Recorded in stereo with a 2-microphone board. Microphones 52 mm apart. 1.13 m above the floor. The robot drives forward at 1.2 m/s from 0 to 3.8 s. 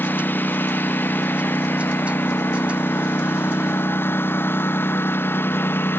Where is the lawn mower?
40° left (ahead or behind); by 6.0 s 45° left (ahead or behind).